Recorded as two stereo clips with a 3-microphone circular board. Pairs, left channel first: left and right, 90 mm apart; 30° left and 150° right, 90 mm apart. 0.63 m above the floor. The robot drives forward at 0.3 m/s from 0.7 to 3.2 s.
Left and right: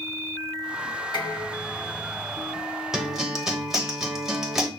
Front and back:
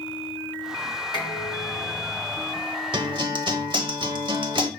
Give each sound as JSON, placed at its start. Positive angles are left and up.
{"t": 1.1, "sound": "dishes clattering", "azimuth_deg": 65, "distance_m": 3.5}
{"t": 2.9, "sound": "a guitar", "azimuth_deg": -175, "distance_m": 0.9}